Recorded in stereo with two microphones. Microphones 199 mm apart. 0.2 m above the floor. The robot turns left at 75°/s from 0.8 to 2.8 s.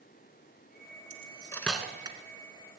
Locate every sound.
1.1 s cutlery clinking: 40° left (ahead or behind), 1.1 m; by 2.2 s 25° right (ahead or behind), 1.1 m